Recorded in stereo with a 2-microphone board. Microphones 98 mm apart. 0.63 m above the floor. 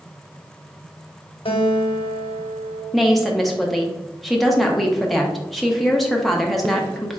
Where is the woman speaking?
Centre (ahead or behind), 0.7 m.